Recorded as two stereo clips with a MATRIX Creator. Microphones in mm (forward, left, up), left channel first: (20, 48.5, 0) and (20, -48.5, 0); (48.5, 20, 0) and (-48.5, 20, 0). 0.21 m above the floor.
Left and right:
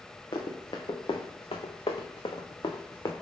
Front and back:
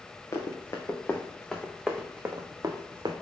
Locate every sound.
0.3 s running footsteps: 55° left, 1.3 m; by 3.1 s 140° left, 1.0 m